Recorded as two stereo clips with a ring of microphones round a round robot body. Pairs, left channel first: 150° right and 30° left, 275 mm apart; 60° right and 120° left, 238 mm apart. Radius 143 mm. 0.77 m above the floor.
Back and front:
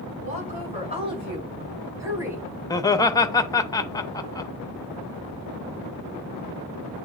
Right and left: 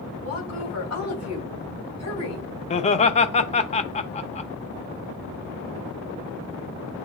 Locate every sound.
0.2 s a woman speaking: 35° right, 4.5 m; by 2.5 s 55° right, 3 m
2.7 s laughter: 85° right, 0.7 m